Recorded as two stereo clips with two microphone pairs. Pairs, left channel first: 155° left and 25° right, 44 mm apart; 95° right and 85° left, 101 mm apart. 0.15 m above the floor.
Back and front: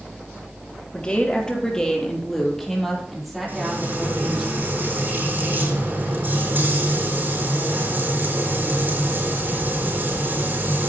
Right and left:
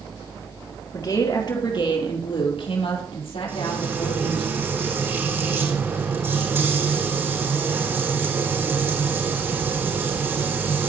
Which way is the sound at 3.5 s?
20° left.